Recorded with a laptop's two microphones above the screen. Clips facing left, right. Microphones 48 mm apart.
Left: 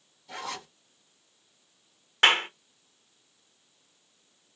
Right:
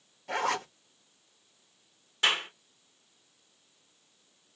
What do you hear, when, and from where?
0.3 s a zipper: 60° right (ahead or behind), 0.8 m
2.2 s a clap: 55° left (ahead or behind), 0.9 m